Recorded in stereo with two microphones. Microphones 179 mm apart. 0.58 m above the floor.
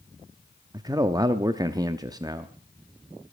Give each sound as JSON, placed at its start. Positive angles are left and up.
{"t": 0.7, "sound": "a man speaking", "side_deg": -20, "distance_m": 0.7}